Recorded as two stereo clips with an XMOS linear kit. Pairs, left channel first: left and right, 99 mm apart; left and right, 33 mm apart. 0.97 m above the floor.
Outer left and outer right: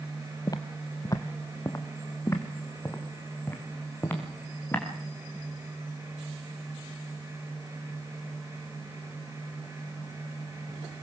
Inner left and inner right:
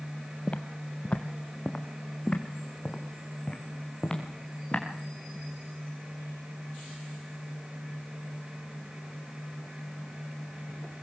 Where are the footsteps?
40° left (ahead or behind), 1.2 m; by 4.8 s 20° left (ahead or behind), 5.5 m.